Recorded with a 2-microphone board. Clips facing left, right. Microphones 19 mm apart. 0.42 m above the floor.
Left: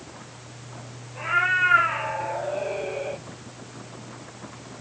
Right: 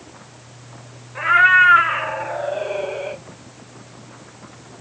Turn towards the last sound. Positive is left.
turn(degrees=-20)  # may be behind; listen again after turning